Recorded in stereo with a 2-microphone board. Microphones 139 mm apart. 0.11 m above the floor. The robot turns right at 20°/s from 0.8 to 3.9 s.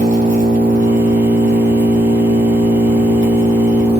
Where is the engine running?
90° right, 1.4 m; by 4.0 s 25° right, 1.4 m.